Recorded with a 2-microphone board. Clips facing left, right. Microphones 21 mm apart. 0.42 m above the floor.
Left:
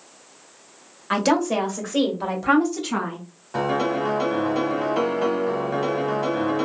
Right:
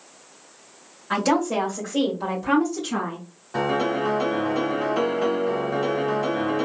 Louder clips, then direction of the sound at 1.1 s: Left 1 dB; 45° left (ahead or behind).